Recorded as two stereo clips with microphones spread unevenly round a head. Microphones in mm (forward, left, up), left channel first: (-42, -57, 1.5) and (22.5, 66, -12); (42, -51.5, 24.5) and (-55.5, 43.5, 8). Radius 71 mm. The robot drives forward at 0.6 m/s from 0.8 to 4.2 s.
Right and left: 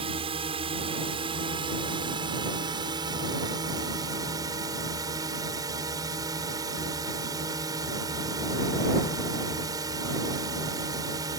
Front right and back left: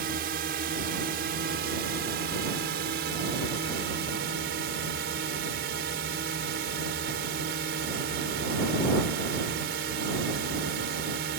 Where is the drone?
115° left; by 11.4 s 130° left.